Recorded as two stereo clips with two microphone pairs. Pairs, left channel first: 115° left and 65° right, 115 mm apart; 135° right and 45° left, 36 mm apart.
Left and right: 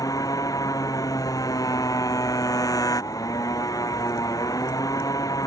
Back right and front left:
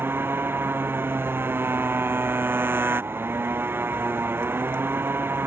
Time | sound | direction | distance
0.0 | a motorcycle | 55° left | ?